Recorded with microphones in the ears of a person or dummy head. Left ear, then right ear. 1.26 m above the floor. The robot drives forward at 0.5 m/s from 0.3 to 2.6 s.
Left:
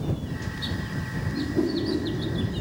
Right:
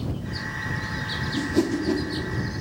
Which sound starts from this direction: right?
A whoosh, at 1.3 s.